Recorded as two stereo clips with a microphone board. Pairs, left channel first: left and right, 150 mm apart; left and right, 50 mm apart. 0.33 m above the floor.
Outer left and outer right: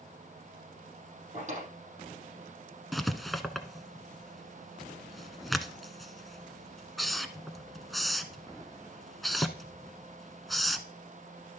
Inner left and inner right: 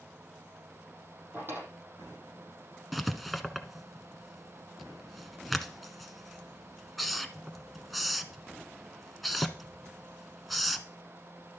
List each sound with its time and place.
1.3 s a drawer: 55° right (ahead or behind), 5.5 m
2.9 s writing: centre (ahead or behind), 1.0 m